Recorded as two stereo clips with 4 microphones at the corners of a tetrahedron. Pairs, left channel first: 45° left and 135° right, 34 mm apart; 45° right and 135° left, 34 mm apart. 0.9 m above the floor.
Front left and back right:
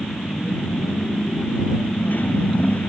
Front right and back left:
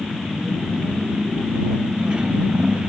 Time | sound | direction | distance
0.0 | a motorcycle | 65° left | ?